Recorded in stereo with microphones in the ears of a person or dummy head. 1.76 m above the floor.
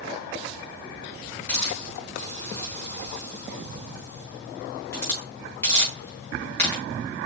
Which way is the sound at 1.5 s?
15° left (ahead or behind).